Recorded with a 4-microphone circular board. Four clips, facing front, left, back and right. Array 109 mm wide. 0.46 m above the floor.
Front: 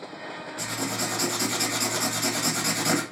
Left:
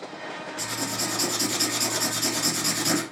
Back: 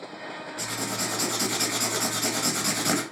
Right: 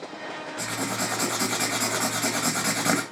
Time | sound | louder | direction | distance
0.6 | writing | right 3 dB, front 2 dB | 90° right | 0.7 m